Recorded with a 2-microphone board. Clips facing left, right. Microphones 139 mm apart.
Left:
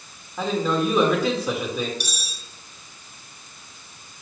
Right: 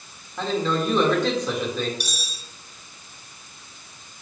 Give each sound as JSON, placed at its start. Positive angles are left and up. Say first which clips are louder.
{"t": 0.4, "sound": "a man speaking", "louder": "left 1 dB", "side_deg": 5, "distance_m": 1.4}
{"t": 2.0, "sound": "cutlery clinking", "louder": "even", "side_deg": 0, "distance_m": 1.4}